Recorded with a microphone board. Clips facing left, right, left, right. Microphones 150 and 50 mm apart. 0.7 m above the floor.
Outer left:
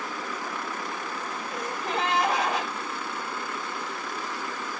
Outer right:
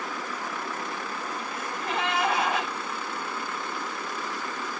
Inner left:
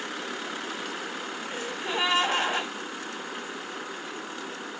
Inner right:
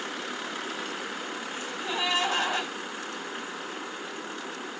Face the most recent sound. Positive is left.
turn(degrees=40)  # may be behind; listen again after turning